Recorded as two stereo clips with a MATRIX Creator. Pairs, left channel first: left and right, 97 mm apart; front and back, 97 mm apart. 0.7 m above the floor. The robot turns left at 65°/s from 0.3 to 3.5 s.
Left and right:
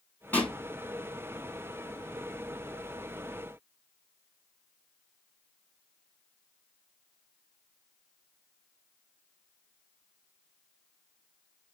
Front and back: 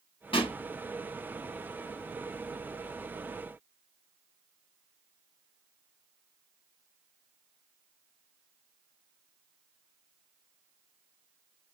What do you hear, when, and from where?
0.3 s a pop: 20° left, 2.5 m; by 0.6 s 5° left, 2.5 m